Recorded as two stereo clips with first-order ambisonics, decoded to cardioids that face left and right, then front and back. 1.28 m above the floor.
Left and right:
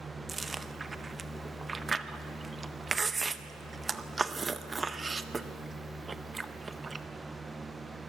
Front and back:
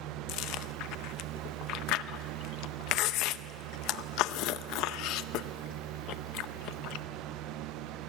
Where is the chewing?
15° right, 0.7 m.